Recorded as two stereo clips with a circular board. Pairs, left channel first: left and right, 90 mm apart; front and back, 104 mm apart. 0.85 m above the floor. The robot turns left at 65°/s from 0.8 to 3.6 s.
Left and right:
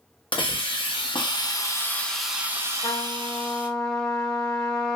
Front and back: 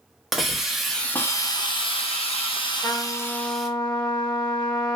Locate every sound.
0.3 s a hiss: 95° left, 0.6 m; by 3.7 s 90° right, 0.6 m
2.8 s a trumpet: 60° left, 0.6 m; by 5.0 s 10° left, 0.6 m